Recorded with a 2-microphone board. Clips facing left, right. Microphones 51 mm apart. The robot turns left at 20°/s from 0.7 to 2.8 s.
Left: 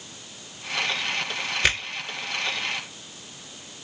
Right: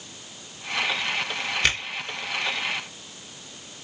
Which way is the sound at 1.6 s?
5° left (ahead or behind).